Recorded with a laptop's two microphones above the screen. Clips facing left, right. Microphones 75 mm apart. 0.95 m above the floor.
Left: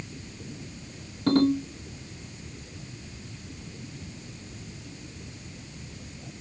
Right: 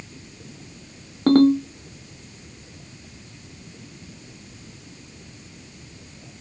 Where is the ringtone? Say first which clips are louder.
Right 7 dB; 55° right (ahead or behind), 1.0 m.